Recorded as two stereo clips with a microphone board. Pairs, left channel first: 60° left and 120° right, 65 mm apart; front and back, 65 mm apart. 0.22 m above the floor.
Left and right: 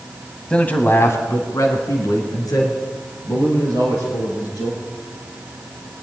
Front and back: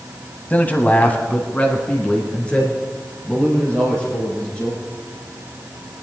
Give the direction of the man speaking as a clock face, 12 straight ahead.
12 o'clock.